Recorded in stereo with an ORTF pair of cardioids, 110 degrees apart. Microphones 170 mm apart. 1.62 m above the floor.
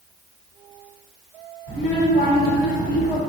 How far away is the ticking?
No ticking in this recording.